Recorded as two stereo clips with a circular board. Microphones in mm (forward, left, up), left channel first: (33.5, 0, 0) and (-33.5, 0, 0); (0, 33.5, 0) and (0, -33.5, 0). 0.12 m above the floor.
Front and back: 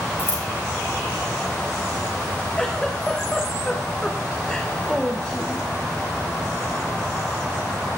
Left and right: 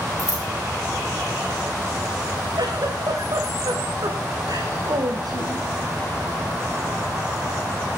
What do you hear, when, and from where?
0.2 s scissors: 50° right, 7.5 m
2.6 s a giggle: 75° right, 4.5 m